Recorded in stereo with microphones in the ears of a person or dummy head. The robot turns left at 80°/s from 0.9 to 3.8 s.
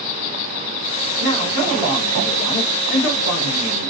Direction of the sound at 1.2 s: 110° right.